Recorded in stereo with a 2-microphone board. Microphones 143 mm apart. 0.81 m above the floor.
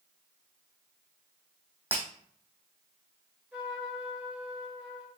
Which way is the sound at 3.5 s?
10° right (ahead or behind).